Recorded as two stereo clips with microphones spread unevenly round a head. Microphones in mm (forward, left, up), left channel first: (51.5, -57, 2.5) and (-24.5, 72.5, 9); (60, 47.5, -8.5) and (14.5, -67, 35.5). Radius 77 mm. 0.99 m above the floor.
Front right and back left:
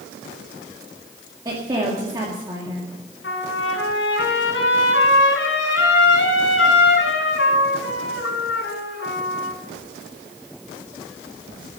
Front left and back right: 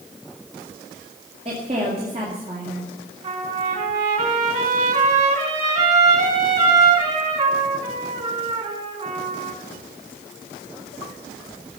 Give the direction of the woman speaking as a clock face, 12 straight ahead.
6 o'clock.